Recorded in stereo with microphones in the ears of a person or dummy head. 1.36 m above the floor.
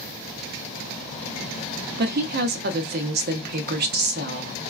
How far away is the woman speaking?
About 0.5 m.